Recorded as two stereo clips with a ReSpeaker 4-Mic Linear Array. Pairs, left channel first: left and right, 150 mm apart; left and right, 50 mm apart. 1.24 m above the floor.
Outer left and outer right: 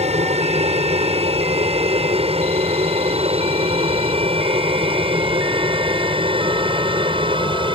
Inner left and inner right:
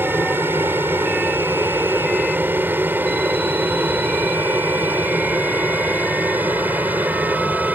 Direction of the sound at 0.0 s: 45° right (ahead or behind).